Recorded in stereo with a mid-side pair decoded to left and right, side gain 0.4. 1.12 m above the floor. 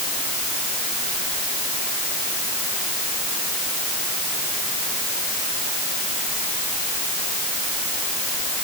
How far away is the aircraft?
No aircraft in this recording.